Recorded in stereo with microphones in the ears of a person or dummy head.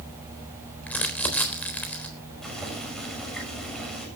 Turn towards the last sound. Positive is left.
turn(degrees=0)  # may be behind; listen again after turning